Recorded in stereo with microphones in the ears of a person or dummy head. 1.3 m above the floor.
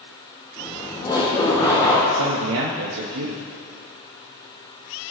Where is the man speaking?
75° right (ahead or behind), 1.5 m.